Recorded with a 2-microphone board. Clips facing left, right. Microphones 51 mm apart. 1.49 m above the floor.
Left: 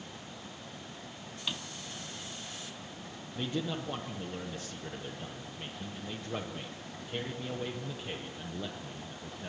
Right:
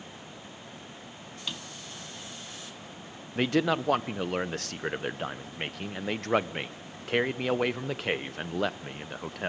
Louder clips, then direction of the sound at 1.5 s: Even; 5° left (ahead or behind).